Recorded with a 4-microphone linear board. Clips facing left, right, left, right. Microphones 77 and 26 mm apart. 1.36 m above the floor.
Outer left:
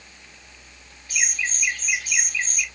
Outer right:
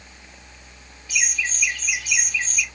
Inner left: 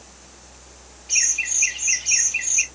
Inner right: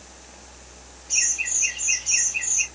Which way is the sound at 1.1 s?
50° left (ahead or behind).